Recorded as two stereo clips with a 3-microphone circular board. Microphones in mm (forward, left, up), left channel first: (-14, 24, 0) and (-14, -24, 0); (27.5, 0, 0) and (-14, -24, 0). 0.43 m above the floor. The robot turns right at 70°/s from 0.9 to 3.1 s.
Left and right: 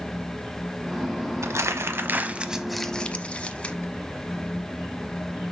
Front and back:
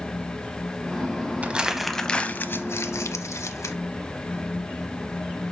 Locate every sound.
1.4 s crumpling: 90° right, 0.7 m; by 3.8 s 25° left, 0.7 m